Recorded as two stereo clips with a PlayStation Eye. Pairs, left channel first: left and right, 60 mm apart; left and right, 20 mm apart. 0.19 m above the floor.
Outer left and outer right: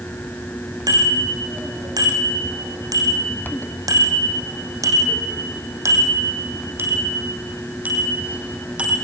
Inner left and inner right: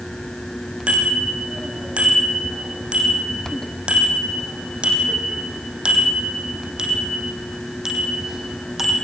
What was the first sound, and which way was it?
A bicycle bell, 80° right.